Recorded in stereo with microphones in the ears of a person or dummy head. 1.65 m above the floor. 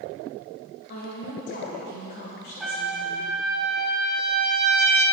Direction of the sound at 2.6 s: Centre (ahead or behind).